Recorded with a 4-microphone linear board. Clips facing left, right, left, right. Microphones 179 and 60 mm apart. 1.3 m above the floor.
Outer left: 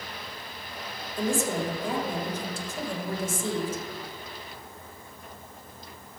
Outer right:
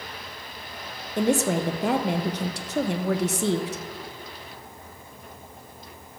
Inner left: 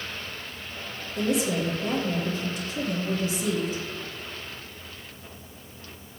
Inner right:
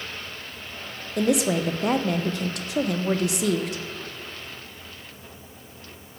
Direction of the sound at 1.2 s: 75° right (ahead or behind).